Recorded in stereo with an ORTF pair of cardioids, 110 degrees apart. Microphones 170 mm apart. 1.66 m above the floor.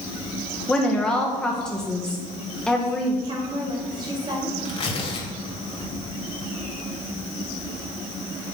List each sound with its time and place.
0.7 s a woman speaking: 5° left, 1.6 m
3.2 s a woman speaking: 25° right, 3.5 m
4.7 s tearing paper: 35° left, 3 m